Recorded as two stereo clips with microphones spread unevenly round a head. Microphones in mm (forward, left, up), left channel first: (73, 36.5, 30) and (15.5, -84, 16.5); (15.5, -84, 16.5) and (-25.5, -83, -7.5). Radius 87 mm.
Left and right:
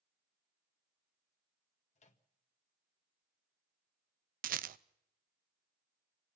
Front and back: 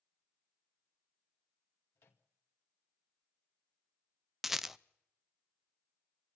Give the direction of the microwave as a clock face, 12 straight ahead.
11 o'clock.